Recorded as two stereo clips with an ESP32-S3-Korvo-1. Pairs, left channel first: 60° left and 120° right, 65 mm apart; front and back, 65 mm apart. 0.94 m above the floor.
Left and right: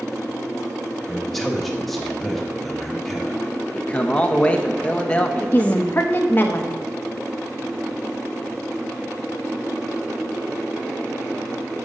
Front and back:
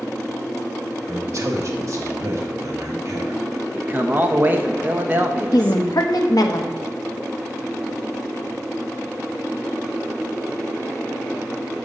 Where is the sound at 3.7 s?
125° left, 0.9 m.